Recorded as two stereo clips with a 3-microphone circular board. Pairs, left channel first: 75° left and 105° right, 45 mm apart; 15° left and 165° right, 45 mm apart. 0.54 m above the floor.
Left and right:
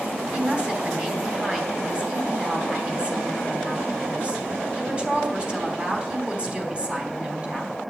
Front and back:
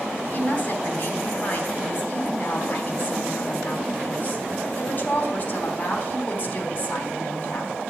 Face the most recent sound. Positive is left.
turn(degrees=-40)